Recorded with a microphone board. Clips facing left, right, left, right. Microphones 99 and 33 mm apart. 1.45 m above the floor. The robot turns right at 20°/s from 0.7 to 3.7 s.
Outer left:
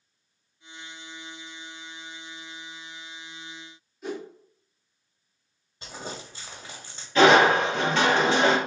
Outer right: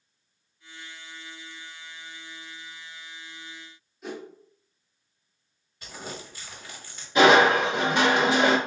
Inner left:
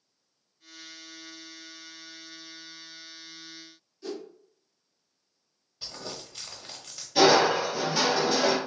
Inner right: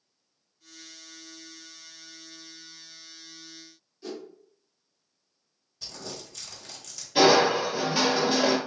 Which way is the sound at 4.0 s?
Centre (ahead or behind).